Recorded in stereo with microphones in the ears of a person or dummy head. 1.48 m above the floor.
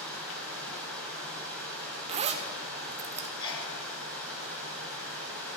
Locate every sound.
0.0 s running water: 5° left (ahead or behind), 2.5 m
2.1 s a zipper: 35° right (ahead or behind), 0.6 m
3.4 s a sneeze: 25° left (ahead or behind), 2.0 m